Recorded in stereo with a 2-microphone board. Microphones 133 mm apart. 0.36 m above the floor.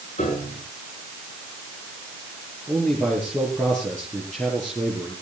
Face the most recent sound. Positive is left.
turn(degrees=10)  # may be behind; listen again after turning